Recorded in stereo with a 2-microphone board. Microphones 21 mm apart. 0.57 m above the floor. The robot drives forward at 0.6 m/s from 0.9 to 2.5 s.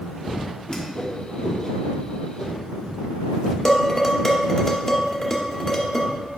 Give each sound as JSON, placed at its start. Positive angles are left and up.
{"t": 0.7, "sound": "a whoosh", "side_deg": 35, "distance_m": 1.1}
{"t": 3.6, "sound": "dishes clattering", "side_deg": 30, "distance_m": 1.0}